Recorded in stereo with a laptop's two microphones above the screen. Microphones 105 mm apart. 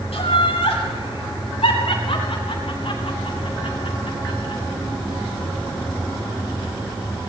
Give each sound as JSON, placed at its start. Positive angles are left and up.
{"t": 0.1, "sound": "laughter", "side_deg": 75, "distance_m": 9.5}